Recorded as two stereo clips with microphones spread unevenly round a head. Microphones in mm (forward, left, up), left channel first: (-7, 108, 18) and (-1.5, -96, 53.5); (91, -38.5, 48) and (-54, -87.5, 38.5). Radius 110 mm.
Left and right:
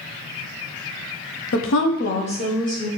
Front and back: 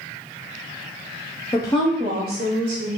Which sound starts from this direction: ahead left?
A woman speaking, at 1.5 s.